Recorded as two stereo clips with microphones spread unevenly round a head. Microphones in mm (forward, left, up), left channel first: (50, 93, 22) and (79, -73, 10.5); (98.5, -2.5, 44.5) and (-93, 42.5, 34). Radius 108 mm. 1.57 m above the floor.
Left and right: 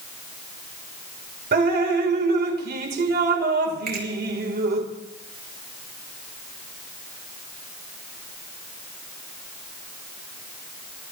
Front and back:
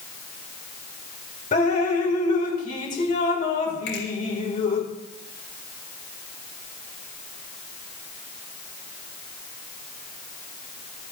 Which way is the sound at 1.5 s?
65° right.